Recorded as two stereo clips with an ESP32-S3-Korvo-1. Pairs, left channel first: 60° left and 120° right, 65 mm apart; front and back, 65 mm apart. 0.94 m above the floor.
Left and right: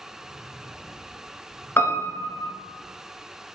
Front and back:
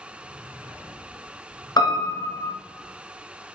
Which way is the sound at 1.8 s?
5° left.